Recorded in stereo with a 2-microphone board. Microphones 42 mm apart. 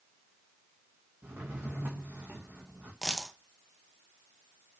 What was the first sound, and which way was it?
A drawer, 55° right (ahead or behind).